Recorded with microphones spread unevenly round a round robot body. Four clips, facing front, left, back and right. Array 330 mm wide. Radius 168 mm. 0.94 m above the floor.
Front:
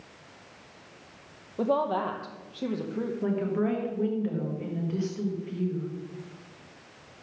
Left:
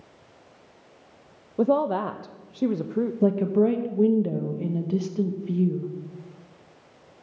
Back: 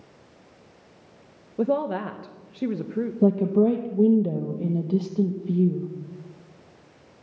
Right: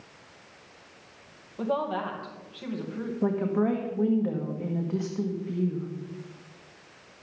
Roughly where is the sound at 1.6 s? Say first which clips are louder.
Left 7 dB, back 2 dB; behind left.